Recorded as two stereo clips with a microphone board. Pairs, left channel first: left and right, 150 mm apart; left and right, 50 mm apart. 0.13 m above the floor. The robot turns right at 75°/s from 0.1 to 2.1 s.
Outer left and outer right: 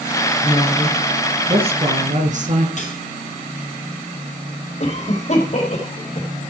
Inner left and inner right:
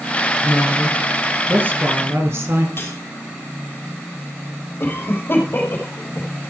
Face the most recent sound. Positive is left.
turn(degrees=50)  # may be behind; listen again after turning